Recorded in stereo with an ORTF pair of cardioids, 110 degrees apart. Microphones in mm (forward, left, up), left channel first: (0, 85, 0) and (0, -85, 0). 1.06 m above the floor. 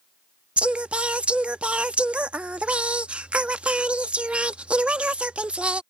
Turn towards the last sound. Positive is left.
turn(degrees=-5)